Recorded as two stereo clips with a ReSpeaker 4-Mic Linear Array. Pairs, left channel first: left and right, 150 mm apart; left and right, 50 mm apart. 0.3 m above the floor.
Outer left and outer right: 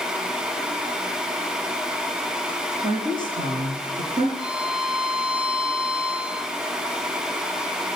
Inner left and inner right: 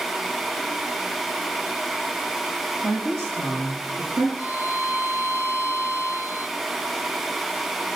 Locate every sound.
2.8 s a woman speaking: 60° right (ahead or behind), 10 m
4.4 s a violin: 35° right (ahead or behind), 4 m